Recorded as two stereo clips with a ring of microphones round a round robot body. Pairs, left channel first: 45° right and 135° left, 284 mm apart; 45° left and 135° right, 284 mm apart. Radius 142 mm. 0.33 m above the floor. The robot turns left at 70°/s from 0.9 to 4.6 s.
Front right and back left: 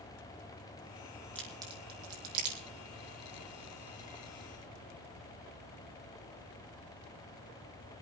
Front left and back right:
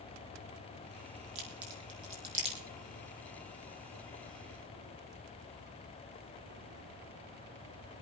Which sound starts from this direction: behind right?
A crack, at 1.4 s.